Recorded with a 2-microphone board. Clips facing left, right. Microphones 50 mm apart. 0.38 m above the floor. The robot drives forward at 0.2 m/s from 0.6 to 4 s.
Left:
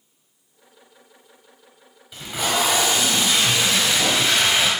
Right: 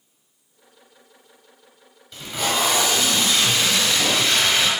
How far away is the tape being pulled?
About 0.9 m.